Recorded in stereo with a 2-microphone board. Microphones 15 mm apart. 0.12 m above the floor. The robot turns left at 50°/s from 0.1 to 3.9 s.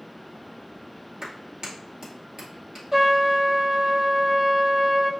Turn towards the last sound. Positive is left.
turn(degrees=-70)